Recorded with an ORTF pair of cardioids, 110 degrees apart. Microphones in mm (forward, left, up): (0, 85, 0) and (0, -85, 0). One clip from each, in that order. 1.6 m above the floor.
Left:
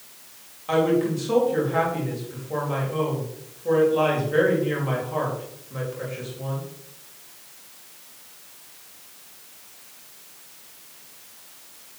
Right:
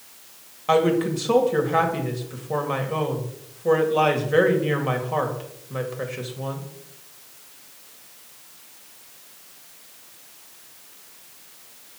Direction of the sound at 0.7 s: 40° right.